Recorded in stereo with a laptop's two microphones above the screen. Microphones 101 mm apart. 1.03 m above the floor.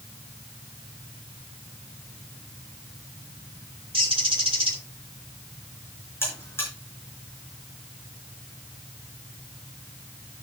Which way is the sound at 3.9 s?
65° right (ahead or behind).